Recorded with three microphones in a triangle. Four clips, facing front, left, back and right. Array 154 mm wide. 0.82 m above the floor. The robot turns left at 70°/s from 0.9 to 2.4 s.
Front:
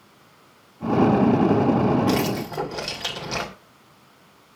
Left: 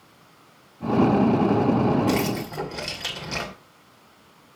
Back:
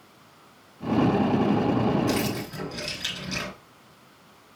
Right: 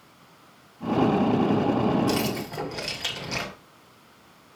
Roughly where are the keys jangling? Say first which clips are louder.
Left 2 dB, front 4 dB; ahead left.